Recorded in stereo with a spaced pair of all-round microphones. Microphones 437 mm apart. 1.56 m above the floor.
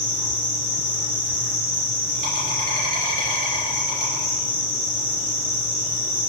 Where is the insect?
45° right (ahead or behind), 3 m.